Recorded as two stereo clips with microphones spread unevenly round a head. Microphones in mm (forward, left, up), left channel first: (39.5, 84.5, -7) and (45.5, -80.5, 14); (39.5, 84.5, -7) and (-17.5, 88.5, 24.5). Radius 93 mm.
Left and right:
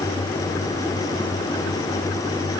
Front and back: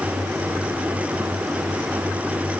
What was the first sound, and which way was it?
Only background noise.